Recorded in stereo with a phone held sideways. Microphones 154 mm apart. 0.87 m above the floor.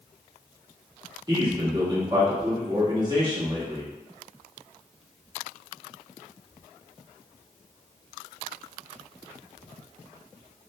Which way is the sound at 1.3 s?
30° right (ahead or behind).